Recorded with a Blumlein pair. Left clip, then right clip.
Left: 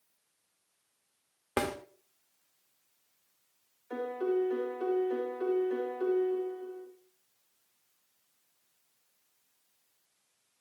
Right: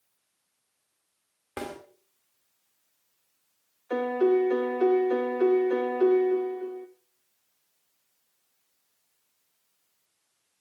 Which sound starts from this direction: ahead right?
A piano, at 3.9 s.